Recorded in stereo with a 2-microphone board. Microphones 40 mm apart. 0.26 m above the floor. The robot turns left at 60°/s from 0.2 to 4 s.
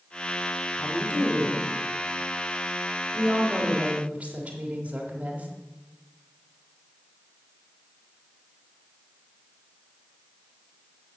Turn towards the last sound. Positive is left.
turn(degrees=-75)